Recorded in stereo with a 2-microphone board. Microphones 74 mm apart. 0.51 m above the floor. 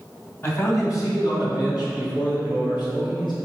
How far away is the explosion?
No explosion in this recording.